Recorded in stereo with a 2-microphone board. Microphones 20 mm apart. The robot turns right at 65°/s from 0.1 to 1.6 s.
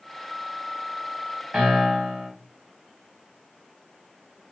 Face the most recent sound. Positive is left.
turn(degrees=-70)  # may be behind; listen again after turning